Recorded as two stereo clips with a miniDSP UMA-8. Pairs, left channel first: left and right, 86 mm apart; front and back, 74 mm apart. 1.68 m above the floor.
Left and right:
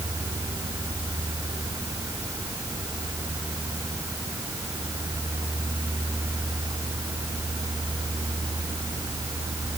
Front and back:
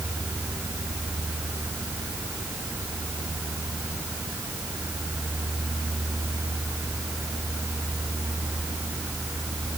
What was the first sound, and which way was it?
Only background noise.